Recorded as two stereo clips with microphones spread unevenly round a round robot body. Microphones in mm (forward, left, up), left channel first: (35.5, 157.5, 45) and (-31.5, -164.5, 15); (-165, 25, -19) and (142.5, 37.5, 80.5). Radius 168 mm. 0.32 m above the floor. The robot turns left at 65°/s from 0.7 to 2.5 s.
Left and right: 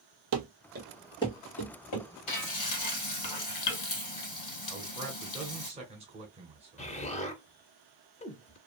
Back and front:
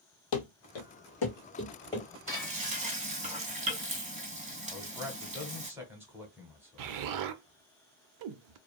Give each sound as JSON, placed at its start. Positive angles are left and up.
{"t": 0.3, "sound": "running footsteps", "azimuth_deg": -150, "distance_m": 0.6}
{"t": 2.3, "sound": "frying", "azimuth_deg": 85, "distance_m": 2.0}
{"t": 4.7, "sound": "a man speaking", "azimuth_deg": -115, "distance_m": 1.2}
{"t": 6.8, "sound": "an explosion", "azimuth_deg": 10, "distance_m": 0.5}